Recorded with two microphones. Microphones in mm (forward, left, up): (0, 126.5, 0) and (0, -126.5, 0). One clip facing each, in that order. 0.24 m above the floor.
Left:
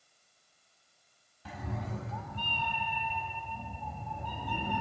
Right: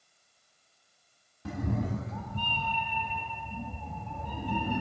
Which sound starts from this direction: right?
A cat meowing, at 1.4 s.